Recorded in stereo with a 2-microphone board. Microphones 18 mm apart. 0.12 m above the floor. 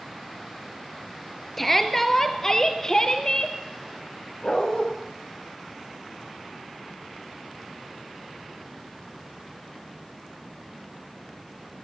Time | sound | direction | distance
1.6 | a shout | 15° left (ahead or behind) | 2 m
4.4 | a dog barking | 50° left (ahead or behind) | 6.5 m